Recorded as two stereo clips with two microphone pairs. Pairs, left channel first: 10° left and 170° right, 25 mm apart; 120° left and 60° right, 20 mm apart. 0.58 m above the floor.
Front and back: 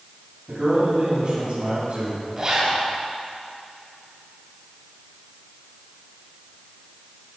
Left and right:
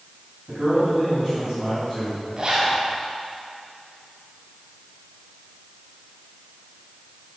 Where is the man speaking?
140° right, 3.5 m.